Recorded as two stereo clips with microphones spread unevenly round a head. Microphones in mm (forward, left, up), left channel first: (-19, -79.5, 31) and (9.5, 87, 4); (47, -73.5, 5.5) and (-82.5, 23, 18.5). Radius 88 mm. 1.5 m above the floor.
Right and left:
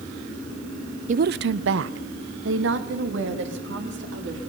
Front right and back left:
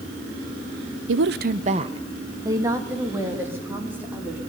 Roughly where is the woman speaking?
Behind left.